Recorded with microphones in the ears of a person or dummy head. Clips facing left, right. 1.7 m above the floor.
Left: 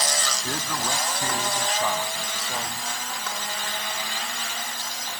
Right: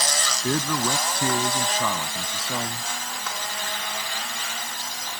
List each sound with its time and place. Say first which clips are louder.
0.4 s a man speaking: right 9 dB; 85° right; by 2.9 s 80° right